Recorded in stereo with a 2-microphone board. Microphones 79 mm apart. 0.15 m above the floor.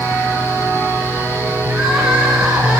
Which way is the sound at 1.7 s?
15° right (ahead or behind).